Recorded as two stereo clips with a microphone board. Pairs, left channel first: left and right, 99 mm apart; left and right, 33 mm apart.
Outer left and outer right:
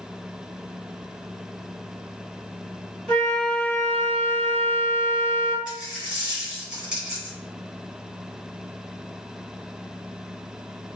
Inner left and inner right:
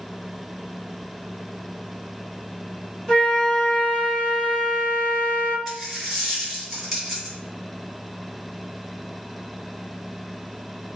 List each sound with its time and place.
3.1 s a flute: 10° left (ahead or behind), 1.8 m
5.7 s a dropped coin: 5° right (ahead or behind), 1.9 m